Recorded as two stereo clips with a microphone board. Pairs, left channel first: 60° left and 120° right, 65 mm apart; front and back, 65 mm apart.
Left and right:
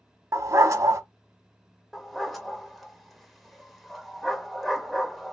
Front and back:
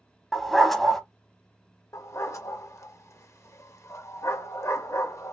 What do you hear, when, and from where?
0.3 s a dog barking: 90° right, 0.6 m
1.9 s a dog barking: 30° right, 0.5 m